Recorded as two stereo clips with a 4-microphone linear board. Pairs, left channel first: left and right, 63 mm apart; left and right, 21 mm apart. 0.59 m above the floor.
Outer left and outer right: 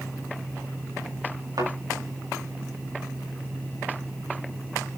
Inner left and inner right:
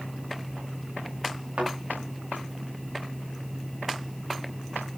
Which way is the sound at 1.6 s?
80° right.